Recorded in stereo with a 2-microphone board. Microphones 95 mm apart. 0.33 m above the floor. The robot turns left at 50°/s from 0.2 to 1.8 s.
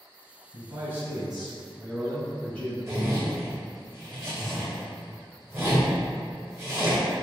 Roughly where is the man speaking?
Behind right.